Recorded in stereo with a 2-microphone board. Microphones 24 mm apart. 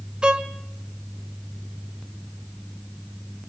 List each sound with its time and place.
0.2 s a violin: 35° right (ahead or behind), 1.1 m